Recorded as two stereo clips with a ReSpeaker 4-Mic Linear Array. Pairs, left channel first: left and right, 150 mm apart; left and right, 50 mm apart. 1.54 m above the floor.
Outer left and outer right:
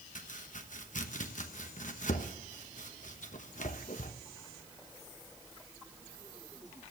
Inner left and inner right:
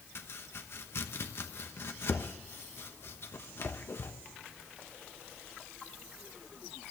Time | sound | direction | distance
0.1 | chopping | 55° left (ahead or behind) | 1.0 m